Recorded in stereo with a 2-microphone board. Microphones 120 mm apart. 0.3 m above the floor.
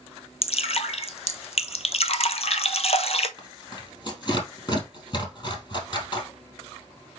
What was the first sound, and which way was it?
Dripping, 60° left (ahead or behind).